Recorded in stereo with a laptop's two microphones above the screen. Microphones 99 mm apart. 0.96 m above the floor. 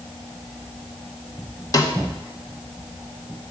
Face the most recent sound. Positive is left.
turn(degrees=35)  # may be behind; listen again after turning